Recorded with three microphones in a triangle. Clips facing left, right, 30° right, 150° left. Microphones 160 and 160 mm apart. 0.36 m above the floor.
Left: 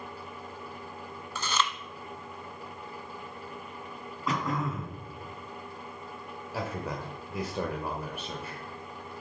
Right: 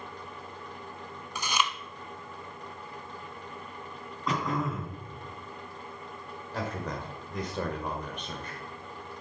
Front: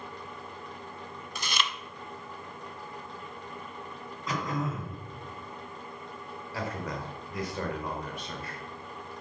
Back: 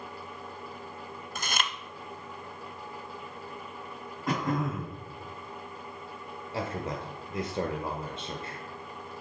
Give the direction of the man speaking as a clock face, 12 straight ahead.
7 o'clock.